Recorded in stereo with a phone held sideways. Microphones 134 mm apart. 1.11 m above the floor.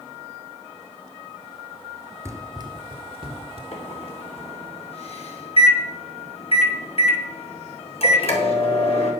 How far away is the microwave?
About 2.5 m.